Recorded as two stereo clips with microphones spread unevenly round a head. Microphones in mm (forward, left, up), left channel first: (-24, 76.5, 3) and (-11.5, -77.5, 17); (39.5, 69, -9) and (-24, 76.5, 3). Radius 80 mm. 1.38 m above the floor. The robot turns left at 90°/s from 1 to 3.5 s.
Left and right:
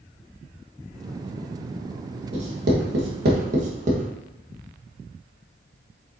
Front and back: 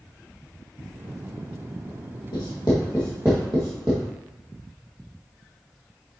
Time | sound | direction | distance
2.3 | writing | 25° right | 1.6 m